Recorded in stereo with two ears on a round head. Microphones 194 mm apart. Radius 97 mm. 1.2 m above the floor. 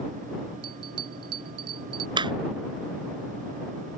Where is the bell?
75° right (ahead or behind).